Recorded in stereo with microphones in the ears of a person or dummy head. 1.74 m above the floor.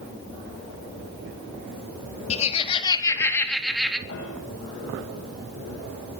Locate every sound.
2.3 s laughter: 35° left (ahead or behind), 4 m; by 4.0 s 5° right (ahead or behind), 3.5 m
4.1 s a piano: 60° left (ahead or behind), 10 m